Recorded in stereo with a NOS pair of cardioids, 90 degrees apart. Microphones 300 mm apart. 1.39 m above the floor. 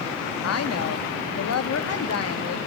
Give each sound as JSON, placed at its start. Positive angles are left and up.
{"t": 0.4, "sound": "a woman speaking", "azimuth_deg": 55, "distance_m": 2.5}